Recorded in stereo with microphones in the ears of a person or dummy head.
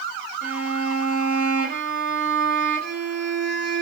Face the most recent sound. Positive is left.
turn(degrees=-55)  # may be behind; listen again after turning